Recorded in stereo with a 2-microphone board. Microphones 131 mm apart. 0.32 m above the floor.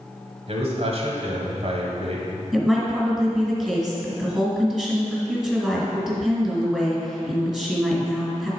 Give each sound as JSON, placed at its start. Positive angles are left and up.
{"t": 0.5, "sound": "a man speaking", "side_deg": -55, "distance_m": 1.4}
{"t": 2.5, "sound": "a woman speaking", "side_deg": -5, "distance_m": 2.0}